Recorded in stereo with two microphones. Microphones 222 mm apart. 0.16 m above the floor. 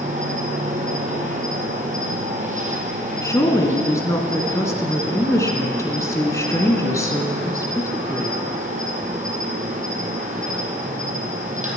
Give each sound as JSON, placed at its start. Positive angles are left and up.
{"t": 0.0, "sound": "an insect", "side_deg": -35, "distance_m": 2.0}
{"t": 3.2, "sound": "a woman speaking", "side_deg": 15, "distance_m": 1.5}